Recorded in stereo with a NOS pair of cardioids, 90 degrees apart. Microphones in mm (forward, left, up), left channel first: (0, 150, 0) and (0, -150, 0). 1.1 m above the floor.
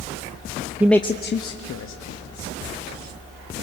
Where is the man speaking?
10° right, 0.7 m; by 2.5 s 80° left, 2 m.